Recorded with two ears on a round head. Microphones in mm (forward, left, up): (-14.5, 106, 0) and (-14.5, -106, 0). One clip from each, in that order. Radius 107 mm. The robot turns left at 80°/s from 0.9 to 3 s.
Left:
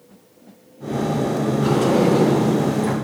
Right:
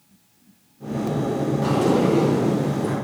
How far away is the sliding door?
About 3.5 m.